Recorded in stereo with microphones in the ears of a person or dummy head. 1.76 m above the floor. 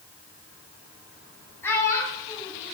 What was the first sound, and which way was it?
A child speaking, 15° left (ahead or behind).